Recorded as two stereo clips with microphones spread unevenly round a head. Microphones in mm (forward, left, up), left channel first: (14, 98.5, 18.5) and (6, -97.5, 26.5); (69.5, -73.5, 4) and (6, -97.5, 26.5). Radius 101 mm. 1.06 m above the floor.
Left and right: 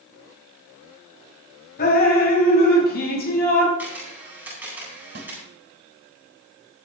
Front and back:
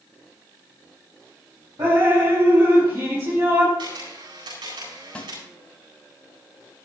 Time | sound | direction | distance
1.8 | dripping | 135° left | 6 m
3.8 | a camera shutter | 175° right | 9.5 m
5.2 | a snare drum | 50° right | 4 m